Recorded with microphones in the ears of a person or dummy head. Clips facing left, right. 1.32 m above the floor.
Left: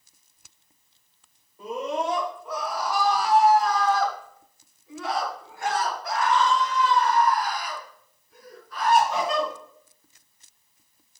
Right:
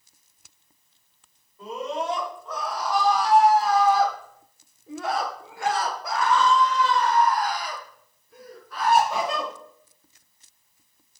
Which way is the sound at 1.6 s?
15° left (ahead or behind).